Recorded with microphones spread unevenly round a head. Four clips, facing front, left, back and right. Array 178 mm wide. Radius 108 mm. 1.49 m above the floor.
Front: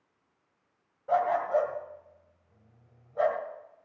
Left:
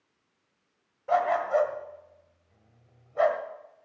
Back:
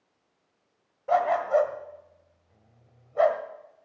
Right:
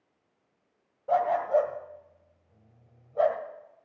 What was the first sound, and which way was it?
A dog barking, 160° right.